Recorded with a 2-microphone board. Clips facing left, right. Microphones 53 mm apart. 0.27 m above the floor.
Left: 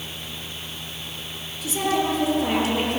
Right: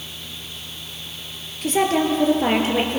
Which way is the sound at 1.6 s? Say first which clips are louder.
Right 4 dB; 55° right (ahead or behind).